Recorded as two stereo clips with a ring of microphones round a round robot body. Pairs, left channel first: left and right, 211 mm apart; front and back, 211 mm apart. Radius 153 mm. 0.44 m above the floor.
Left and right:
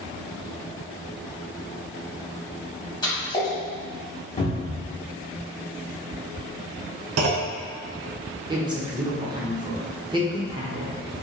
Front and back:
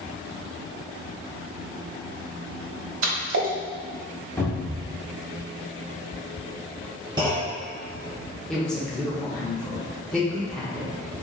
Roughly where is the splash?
Behind.